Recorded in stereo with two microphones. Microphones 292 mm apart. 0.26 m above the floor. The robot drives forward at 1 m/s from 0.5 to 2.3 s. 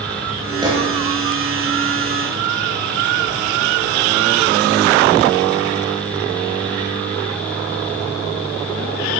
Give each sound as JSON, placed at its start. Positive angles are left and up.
{"t": 0.6, "sound": "a gunshot", "side_deg": -15, "distance_m": 5.0}